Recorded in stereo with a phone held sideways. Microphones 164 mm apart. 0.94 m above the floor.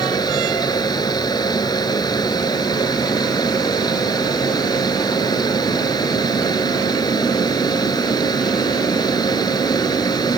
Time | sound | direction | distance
0.0 | a fan | 25° left (ahead or behind) | ?